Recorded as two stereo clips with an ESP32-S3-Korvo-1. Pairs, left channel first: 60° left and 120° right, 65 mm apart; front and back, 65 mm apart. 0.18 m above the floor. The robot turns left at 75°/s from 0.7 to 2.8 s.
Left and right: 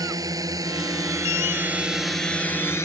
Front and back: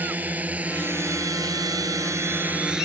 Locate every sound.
0.0 s a drone: 115° right; by 2.9 s 105° left